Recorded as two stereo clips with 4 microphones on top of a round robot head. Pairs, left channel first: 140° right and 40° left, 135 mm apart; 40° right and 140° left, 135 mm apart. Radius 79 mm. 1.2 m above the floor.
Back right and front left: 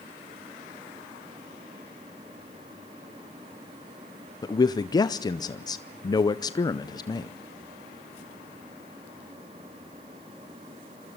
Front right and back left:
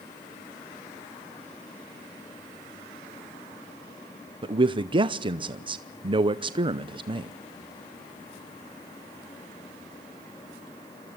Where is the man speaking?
170° left, 0.7 m.